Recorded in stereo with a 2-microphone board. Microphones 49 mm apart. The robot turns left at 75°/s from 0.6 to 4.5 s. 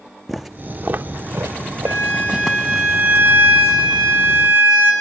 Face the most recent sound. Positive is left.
turn(degrees=-135)